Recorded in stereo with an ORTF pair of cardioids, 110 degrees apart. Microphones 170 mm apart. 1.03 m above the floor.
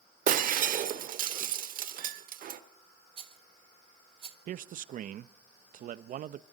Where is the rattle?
35° right, 1.3 m.